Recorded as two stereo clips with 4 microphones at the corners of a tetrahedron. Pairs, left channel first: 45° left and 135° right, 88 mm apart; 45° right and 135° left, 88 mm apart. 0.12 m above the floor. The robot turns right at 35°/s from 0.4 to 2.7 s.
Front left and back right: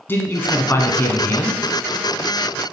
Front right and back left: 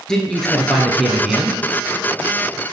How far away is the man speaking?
About 1.2 m.